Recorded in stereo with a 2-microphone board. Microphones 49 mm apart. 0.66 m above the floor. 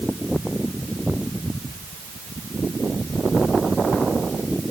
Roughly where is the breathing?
No breathing in this recording.